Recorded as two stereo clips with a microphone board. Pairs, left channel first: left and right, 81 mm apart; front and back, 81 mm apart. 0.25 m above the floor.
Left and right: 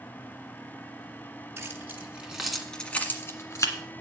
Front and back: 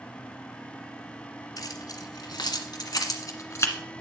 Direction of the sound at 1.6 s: 35° right.